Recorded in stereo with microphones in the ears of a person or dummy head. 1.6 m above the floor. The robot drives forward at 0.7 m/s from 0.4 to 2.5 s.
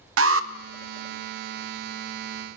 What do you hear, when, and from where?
0.2 s an alarm: 70° right (ahead or behind), 0.6 m; by 0.5 s 65° right (ahead or behind), 0.7 m